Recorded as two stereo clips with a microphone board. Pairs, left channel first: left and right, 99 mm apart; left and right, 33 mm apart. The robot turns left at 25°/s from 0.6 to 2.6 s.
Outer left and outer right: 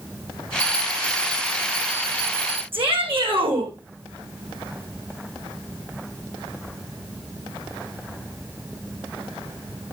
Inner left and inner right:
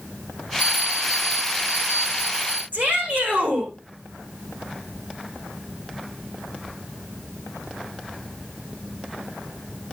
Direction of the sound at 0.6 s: 40° right.